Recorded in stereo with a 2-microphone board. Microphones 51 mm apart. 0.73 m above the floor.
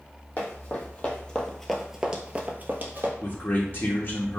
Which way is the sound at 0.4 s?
35° left (ahead or behind).